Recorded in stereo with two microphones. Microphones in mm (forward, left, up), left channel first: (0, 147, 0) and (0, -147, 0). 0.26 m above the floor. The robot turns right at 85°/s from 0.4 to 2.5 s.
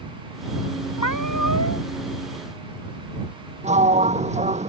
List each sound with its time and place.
1.0 s a cat meowing: 65° left; by 1.8 s 140° left
3.6 s a sliding door: 25° right (ahead or behind)